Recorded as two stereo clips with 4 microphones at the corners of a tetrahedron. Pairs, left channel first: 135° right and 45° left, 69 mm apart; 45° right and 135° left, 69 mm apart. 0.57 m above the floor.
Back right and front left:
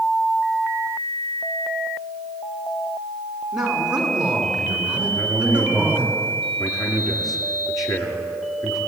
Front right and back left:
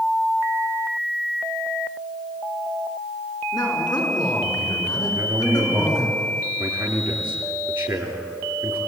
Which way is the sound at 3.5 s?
40° right.